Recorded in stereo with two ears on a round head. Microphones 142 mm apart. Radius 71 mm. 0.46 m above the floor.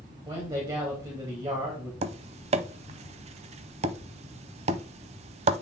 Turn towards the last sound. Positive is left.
turn(degrees=-40)  # may be behind; listen again after turning